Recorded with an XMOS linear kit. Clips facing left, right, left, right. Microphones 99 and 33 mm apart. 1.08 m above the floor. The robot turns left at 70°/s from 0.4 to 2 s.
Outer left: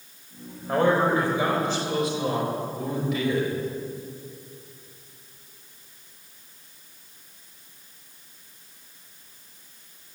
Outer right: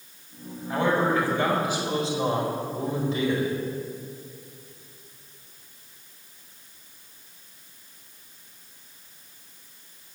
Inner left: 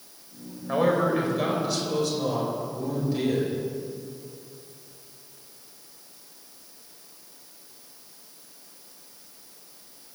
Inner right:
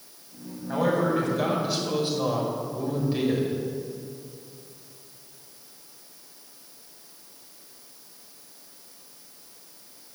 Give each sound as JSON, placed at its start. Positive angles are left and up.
{"t": 0.7, "sound": "a man speaking", "azimuth_deg": 60, "distance_m": 5.0}